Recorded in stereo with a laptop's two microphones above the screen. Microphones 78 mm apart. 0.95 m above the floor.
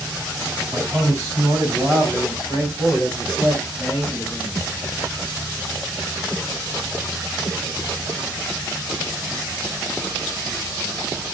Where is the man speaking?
50° right (ahead or behind), 5.5 m; by 4.7 s 5° right (ahead or behind), 6.5 m.